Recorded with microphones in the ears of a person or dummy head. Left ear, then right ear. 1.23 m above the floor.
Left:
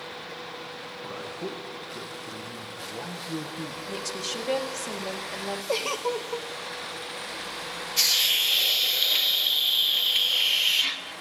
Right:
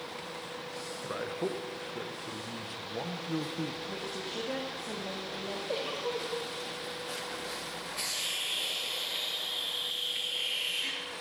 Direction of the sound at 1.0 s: 15° right (ahead or behind).